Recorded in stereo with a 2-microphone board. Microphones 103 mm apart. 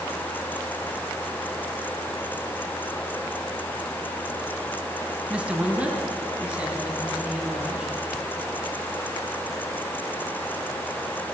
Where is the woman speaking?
10° right (ahead or behind), 1.0 m.